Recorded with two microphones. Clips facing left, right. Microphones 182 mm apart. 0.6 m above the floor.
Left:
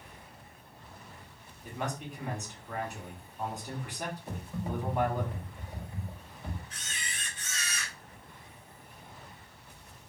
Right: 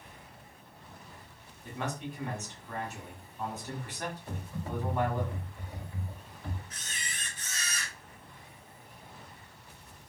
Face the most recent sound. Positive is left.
turn(degrees=-40)  # may be behind; listen again after turning